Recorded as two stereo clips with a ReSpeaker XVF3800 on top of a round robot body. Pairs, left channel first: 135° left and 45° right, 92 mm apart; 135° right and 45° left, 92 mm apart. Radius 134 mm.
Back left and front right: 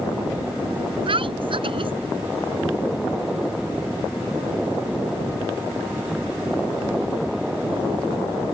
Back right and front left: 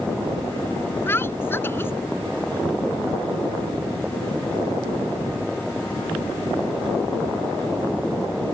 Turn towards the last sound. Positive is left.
turn(degrees=-70)